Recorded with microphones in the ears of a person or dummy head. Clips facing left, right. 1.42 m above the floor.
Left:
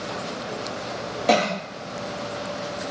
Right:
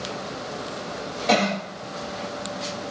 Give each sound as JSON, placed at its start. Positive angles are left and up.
{"t": 1.3, "sound": "a cough", "side_deg": 45, "distance_m": 0.8}